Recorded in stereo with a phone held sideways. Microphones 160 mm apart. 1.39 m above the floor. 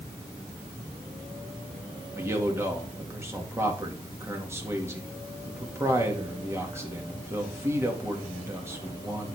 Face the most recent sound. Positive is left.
turn(degrees=-15)  # may be behind; listen again after turning